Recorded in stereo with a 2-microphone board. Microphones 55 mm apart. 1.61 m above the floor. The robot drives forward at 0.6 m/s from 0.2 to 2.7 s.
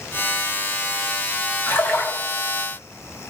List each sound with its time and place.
1.7 s a splash: 40° left (ahead or behind), 3 m